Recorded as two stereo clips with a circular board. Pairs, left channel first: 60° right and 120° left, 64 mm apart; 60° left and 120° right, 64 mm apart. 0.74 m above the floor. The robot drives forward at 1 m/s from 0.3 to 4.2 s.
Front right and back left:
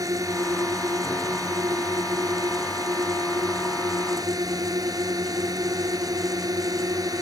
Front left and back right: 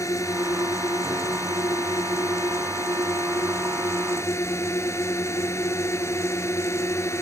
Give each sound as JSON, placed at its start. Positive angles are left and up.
{"t": 0.0, "sound": "a drone", "azimuth_deg": 95}